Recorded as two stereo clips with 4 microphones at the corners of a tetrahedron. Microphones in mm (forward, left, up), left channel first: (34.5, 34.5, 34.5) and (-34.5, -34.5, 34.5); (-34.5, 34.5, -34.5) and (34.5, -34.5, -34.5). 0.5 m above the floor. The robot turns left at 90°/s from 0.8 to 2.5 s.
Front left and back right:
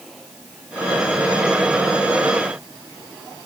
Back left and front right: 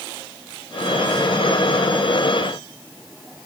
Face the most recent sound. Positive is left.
No sound to turn to.